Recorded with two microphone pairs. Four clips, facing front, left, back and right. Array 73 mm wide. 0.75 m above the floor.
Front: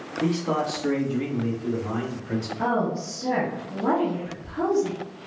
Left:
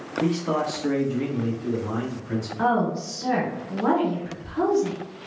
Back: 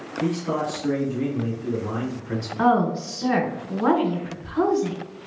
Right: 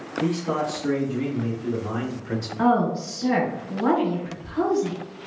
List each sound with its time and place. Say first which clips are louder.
0.2 s a man speaking: left 1 dB, even; 50° left, 1.4 m; by 2.5 s 95° right, 1.2 m
2.6 s a woman speaking: right 2 dB, back 6 dB; 175° left, 1.8 m